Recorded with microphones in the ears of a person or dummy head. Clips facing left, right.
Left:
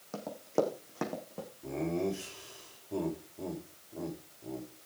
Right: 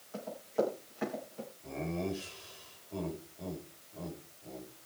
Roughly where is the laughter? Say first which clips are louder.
Left 4 dB; left.